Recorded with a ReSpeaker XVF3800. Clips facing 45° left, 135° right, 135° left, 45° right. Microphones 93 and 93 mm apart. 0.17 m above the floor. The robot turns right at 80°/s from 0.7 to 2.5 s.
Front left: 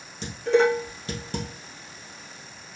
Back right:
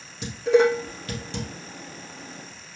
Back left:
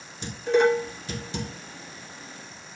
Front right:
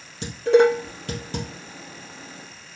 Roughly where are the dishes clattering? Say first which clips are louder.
Back right 2 dB, front right 5 dB; ahead right.